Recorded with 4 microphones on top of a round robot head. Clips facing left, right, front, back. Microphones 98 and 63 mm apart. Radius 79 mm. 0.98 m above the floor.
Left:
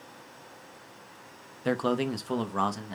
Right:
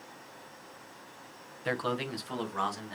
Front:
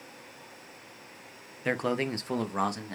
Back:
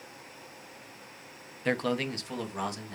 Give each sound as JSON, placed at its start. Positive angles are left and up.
{"t": 1.6, "sound": "a man speaking", "azimuth_deg": 80, "distance_m": 0.7}